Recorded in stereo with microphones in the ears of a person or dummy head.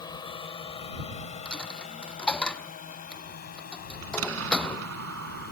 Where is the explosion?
85° right.